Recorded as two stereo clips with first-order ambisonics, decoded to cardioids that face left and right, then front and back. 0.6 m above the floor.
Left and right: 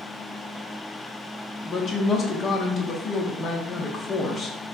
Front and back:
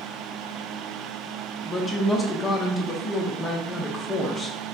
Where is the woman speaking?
60° left, 0.8 m.